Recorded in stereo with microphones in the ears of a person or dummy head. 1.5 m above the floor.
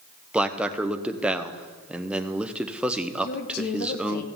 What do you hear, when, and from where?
0.3 s a man speaking: 5° right (ahead or behind), 0.6 m
3.2 s a woman speaking: 55° left (ahead or behind), 1.2 m